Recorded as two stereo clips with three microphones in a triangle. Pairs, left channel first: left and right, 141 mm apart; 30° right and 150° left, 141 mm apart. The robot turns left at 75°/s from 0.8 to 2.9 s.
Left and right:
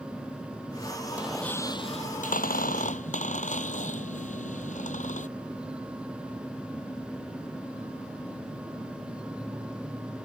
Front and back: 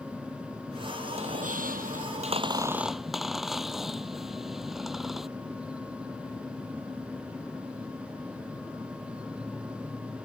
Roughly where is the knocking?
I don't hear knocking.